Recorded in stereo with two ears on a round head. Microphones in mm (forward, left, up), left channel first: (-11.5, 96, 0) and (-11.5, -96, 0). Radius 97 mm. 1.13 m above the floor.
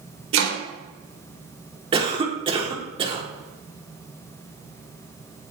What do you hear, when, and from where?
0.3 s chopping: 60° right (ahead or behind), 4 m
1.9 s a cough: 25° right (ahead or behind), 3.5 m